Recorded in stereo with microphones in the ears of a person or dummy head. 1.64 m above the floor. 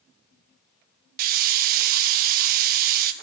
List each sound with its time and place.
1.2 s a hiss: 55° right (ahead or behind), 0.7 m